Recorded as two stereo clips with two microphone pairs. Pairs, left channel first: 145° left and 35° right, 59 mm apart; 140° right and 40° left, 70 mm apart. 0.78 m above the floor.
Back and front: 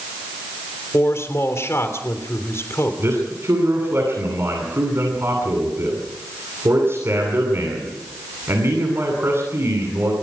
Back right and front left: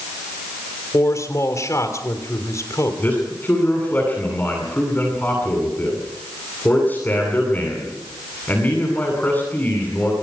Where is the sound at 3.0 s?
75° right, 9.5 m.